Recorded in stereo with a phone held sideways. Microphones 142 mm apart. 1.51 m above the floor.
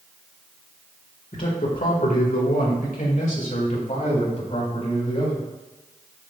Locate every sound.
1.3 s a man speaking: 65° left (ahead or behind), 1.9 m; by 5.5 s 45° left (ahead or behind), 4.5 m